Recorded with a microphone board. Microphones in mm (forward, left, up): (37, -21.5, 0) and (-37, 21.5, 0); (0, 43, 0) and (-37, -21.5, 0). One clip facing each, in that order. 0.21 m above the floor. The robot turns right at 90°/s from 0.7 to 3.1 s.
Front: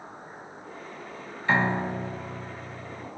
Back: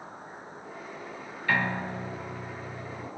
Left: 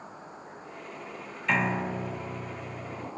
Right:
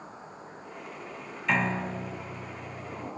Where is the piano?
30° right, 0.7 m; by 3.1 s 115° left, 0.7 m.